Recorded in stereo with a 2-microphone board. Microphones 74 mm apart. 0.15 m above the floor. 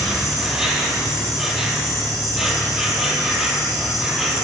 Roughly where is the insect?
Centre.